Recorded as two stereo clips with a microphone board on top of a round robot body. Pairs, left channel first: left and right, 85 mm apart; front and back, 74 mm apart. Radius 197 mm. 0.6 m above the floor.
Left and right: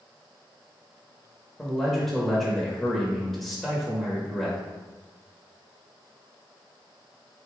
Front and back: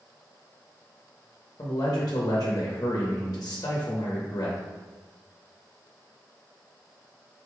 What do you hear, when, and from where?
1.6 s a man speaking: straight ahead, 1.1 m